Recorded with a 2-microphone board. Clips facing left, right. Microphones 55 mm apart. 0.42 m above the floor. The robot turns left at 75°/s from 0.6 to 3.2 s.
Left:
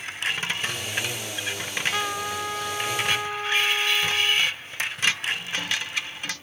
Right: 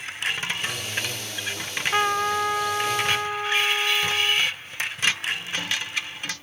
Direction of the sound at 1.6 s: 35° right.